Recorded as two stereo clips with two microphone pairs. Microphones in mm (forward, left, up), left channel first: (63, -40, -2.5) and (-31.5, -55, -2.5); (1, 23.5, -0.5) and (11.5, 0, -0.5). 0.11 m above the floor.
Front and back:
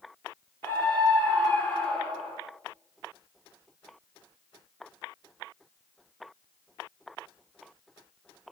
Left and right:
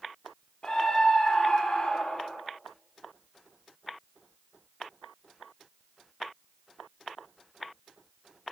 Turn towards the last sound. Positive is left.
turn(degrees=85)